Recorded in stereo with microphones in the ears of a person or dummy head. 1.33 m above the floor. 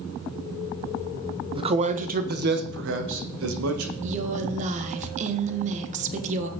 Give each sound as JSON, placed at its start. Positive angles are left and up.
{"t": 1.6, "sound": "a man speaking", "side_deg": -25, "distance_m": 1.0}
{"t": 4.0, "sound": "a woman speaking", "side_deg": -40, "distance_m": 1.3}